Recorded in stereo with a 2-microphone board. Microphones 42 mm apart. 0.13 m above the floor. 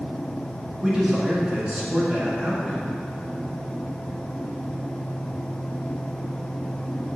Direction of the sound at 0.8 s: 25° right (ahead or behind).